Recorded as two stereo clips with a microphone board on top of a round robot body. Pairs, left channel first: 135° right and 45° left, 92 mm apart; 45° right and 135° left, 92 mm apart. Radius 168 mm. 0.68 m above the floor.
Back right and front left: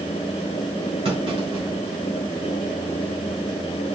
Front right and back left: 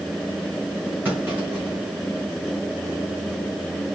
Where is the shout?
No shout in this recording.